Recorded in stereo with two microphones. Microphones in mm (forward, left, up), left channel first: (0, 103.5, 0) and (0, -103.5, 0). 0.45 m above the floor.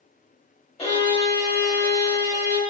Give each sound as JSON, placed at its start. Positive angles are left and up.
{"t": 0.8, "sound": "a violin", "side_deg": 25, "distance_m": 1.3}